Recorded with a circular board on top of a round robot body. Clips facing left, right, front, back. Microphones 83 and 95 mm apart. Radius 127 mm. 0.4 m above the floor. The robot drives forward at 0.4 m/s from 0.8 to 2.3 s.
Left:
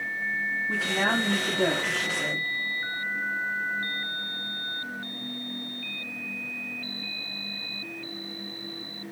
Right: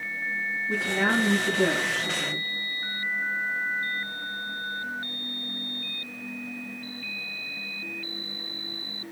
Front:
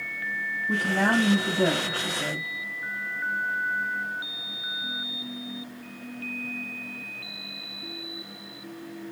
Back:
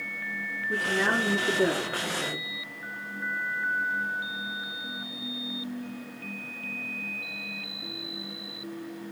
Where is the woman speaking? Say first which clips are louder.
Right 2 dB, front 3 dB; 25° left, 3 m; by 2.5 s 35° left, 2.5 m.